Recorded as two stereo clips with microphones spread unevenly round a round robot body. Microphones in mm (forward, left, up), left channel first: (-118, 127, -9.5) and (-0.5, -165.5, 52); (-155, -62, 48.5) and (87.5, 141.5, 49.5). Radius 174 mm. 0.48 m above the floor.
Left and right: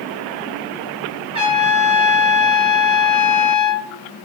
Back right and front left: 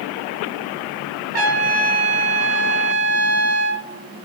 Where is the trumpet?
10° left, 0.9 m.